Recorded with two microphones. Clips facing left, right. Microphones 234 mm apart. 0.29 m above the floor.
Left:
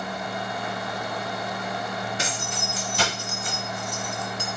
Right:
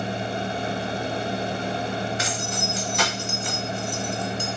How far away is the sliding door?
I don't hear a sliding door.